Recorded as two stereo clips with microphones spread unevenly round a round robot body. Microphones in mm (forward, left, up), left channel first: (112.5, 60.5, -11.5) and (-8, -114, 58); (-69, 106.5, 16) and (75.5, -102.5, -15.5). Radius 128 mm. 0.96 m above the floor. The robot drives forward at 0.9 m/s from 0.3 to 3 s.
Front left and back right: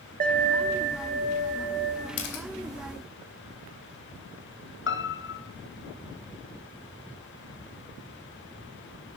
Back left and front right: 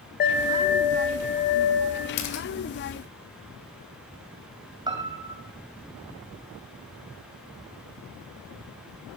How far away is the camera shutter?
About 2.5 m.